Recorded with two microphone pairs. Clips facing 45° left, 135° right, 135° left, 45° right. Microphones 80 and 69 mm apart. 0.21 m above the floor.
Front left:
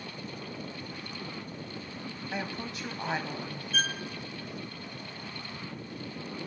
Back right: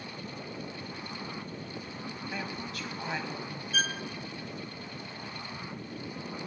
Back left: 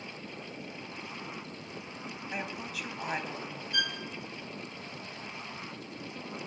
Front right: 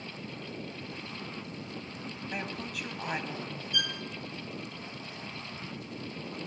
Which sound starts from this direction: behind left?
A violin, at 3.7 s.